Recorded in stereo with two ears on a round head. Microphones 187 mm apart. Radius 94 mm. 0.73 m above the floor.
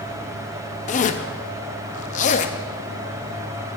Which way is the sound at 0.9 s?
35° left (ahead or behind).